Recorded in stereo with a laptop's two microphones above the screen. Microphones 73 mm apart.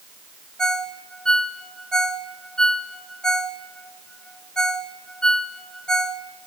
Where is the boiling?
No boiling in this recording.